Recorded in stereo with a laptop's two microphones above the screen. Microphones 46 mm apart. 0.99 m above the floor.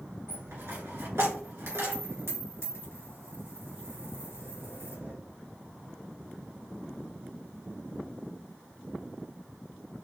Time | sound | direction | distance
0.3 | a dropped coin | 65° right (ahead or behind) | 2.0 m